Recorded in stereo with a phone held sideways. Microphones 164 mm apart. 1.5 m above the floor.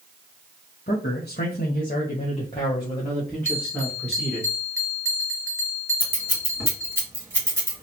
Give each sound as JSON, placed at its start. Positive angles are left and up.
{"t": 0.9, "sound": "a man speaking", "side_deg": 70, "distance_m": 1.1}
{"t": 3.5, "sound": "a bell", "side_deg": -15, "distance_m": 1.2}
{"t": 6.0, "sound": "scissors", "side_deg": -15, "distance_m": 2.5}